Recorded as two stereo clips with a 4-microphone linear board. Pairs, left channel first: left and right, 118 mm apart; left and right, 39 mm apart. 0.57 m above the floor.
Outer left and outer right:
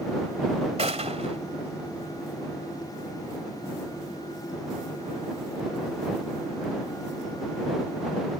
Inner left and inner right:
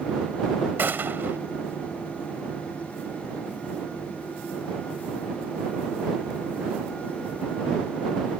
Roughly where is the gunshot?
Right.